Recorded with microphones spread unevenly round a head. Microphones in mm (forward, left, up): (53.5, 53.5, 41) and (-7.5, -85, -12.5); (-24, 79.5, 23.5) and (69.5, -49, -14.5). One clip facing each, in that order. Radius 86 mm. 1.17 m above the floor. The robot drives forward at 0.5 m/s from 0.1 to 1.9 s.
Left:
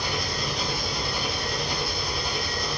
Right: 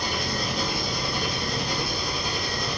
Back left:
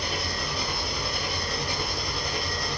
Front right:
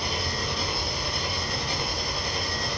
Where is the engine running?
120° right, 10 m; by 2.8 s 125° right, 10.5 m.